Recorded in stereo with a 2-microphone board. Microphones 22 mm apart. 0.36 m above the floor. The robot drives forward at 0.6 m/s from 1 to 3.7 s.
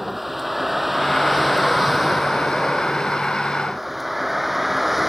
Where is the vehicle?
5° right (ahead or behind).